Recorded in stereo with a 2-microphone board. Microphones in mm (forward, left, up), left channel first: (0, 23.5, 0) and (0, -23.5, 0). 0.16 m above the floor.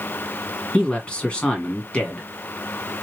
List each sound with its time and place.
0.7 s a man speaking: 25° left (ahead or behind), 1.4 m